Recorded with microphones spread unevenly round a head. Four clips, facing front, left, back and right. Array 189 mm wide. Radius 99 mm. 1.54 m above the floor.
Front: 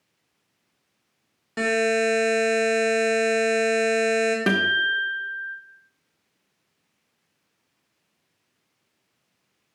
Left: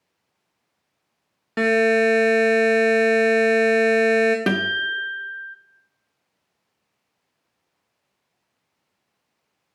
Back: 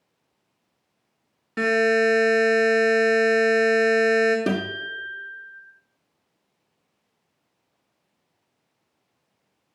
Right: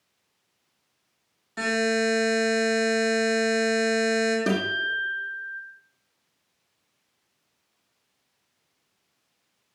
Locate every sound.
1.6 s a buzzer: 95° left, 1.0 m
4.5 s a guitar: 90° left, 0.7 m